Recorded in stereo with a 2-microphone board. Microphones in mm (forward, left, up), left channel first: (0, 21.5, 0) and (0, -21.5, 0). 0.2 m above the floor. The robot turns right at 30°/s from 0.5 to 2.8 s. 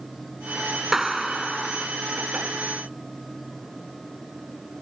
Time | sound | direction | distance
0.9 | a clap | 10° right (ahead or behind) | ?